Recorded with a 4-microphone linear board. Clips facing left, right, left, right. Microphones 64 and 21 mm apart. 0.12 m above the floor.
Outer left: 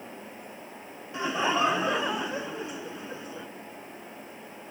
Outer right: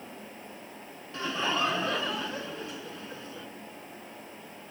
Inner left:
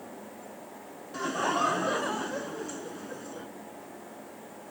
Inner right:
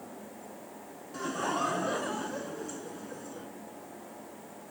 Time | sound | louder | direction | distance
1.1 | laughter | outer left 4 dB, inner left 4 dB | 20° left (ahead or behind) | 1.1 m